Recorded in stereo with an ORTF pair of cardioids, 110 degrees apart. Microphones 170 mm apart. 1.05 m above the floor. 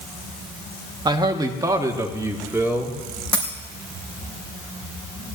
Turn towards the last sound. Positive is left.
turn(degrees=10)